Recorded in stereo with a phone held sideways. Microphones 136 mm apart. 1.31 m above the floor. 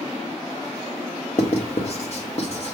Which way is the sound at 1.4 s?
55° left (ahead or behind).